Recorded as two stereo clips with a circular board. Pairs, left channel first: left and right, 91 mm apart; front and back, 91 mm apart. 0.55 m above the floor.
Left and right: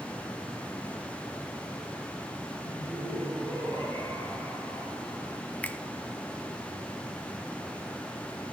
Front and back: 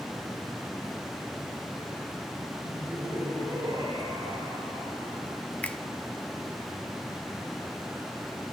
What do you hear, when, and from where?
2.6 s laughter: 140° right, 7 m; by 5.4 s 175° right, 6 m
5.6 s a finger snap: 45° left, 0.8 m